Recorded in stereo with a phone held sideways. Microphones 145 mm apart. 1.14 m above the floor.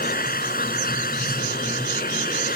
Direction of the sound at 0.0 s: 85° left.